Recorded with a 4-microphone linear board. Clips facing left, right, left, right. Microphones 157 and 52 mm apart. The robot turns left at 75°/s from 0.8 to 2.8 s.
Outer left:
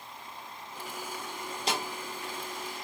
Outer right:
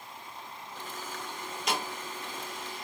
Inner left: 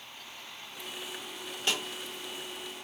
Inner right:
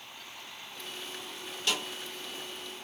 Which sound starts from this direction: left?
A snare drum, at 1.7 s.